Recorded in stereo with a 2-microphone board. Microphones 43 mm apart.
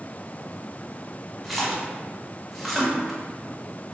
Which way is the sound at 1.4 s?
5° left (ahead or behind).